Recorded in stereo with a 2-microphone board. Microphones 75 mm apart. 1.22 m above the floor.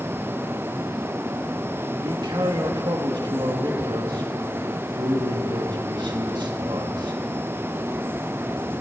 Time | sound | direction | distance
2.0 | a man speaking | 80° right | 2.0 m